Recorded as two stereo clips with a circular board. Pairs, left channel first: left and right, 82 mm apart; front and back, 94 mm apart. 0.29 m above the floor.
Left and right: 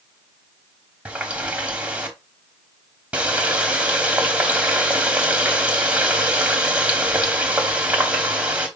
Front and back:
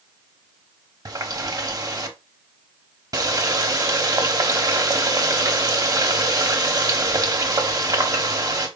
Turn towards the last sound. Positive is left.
turn(degrees=-160)